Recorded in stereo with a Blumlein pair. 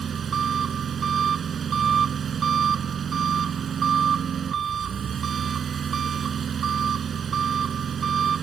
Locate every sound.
0.0 s an engine running: 25° right